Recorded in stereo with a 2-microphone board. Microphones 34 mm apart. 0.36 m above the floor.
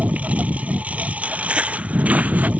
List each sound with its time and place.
0.0 s a lawn mower: 45° right (ahead or behind)
1.2 s footsteps: 30° right (ahead or behind); by 2.5 s 50° right (ahead or behind)